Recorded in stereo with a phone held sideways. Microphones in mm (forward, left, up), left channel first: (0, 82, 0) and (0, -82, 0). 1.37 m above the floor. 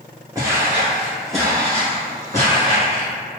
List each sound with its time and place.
0.3 s footsteps: 20° right (ahead or behind), 1.4 m; by 3.1 s 35° left (ahead or behind), 1.6 m